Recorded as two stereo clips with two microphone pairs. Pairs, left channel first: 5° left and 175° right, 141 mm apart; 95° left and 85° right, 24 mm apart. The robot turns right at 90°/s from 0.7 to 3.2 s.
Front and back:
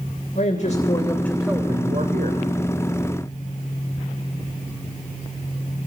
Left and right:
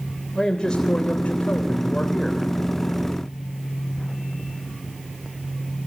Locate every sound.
0.3 s a man speaking: 35° left, 3 m; by 2.5 s 165° right, 3 m